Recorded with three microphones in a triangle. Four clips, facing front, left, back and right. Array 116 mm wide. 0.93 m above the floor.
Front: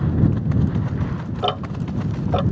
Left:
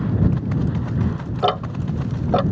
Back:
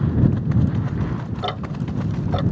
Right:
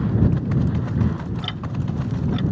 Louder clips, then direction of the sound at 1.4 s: Left 8 dB, front 5 dB; 75° left.